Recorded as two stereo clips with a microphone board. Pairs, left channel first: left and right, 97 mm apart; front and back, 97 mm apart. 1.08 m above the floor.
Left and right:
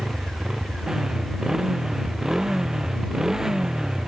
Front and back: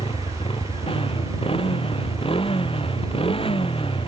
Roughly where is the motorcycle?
Ahead.